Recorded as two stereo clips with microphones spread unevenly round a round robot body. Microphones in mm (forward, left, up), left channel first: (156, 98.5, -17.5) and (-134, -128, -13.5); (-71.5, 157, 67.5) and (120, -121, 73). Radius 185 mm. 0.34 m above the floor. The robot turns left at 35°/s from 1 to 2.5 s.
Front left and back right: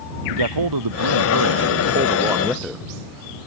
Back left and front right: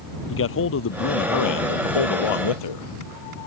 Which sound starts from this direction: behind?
A man speaking, at 0.3 s.